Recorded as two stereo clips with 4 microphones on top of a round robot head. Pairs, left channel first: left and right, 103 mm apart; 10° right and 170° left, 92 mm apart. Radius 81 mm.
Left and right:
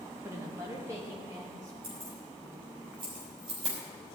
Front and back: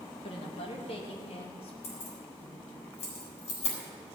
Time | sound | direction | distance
0.2 | a woman speaking | 20° right | 2 m
1.8 | keys jangling | 35° right | 4 m